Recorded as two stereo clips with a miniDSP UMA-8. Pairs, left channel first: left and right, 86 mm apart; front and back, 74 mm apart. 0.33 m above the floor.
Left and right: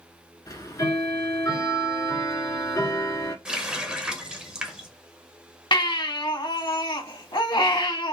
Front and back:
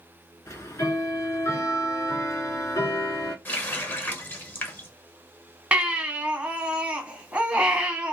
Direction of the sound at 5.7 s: 110° left.